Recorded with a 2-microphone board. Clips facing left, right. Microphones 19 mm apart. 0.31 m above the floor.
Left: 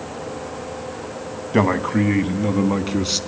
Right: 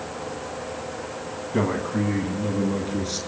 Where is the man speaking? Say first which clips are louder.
Left 6 dB; 60° left (ahead or behind), 1.7 m; by 3.2 s 70° left (ahead or behind), 2.5 m.